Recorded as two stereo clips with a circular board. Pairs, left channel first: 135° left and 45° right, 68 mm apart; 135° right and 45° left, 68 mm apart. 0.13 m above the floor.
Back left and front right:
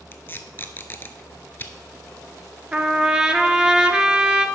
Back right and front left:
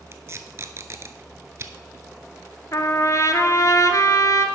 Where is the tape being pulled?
80° left, 0.6 m.